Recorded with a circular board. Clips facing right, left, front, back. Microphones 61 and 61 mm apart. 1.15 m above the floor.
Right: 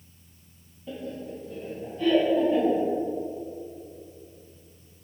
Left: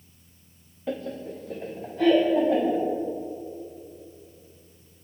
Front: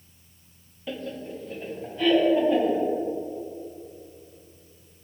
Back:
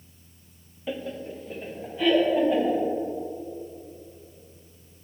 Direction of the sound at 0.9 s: 100° left.